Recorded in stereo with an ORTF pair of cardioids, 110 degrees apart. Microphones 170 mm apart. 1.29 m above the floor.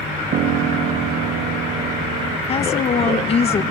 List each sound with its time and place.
0.3 s a piano: 60° right, 1.3 m
2.5 s a woman speaking: 35° left, 1.4 m